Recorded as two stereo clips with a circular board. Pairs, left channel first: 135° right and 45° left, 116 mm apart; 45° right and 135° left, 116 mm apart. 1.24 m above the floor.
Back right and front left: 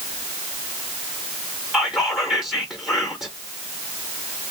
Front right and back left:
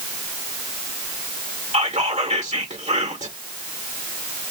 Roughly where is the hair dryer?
I don't hear a hair dryer.